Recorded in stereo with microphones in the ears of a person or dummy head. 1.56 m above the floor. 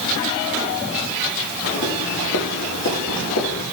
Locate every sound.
1.6 s footsteps: 65° left (ahead or behind), 5 m; by 3.6 s 75° left (ahead or behind), 5.5 m